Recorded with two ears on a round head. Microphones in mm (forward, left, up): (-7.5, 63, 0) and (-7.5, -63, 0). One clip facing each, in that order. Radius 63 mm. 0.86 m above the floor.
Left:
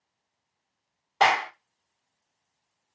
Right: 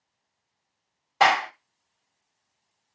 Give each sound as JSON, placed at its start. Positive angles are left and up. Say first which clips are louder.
{"t": 1.2, "sound": "a clap", "louder": "right 2 dB", "side_deg": -10, "distance_m": 1.9}